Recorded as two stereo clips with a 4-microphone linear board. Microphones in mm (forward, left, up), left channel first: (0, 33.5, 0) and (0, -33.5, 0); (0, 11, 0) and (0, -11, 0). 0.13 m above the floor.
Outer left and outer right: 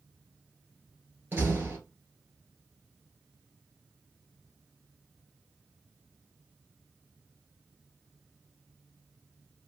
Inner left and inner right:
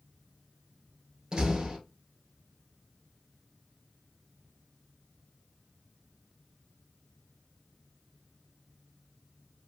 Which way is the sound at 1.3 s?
30° right (ahead or behind).